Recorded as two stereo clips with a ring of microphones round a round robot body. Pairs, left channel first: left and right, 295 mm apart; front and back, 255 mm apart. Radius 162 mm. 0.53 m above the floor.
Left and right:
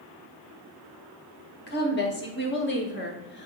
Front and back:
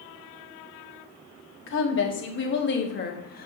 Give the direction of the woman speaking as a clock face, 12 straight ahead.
11 o'clock.